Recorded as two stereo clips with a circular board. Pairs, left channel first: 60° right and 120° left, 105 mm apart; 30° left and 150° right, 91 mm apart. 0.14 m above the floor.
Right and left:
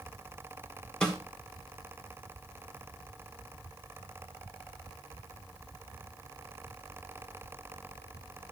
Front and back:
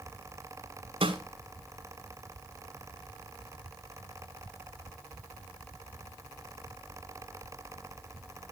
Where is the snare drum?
145° right, 1.7 m.